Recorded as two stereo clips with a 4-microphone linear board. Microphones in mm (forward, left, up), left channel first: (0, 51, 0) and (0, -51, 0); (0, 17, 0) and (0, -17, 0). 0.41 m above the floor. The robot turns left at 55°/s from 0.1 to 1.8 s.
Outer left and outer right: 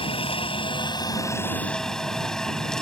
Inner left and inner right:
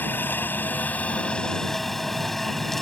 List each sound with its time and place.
0.0 s a helicopter: 100° left; by 2.8 s 5° left